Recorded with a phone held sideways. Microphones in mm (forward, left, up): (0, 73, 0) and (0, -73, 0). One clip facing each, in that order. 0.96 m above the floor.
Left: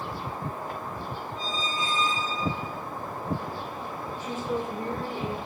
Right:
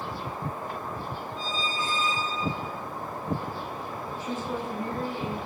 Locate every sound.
1.4 s a squeak: 20° left (ahead or behind), 1.9 m
4.2 s a woman speaking: 40° left (ahead or behind), 2.5 m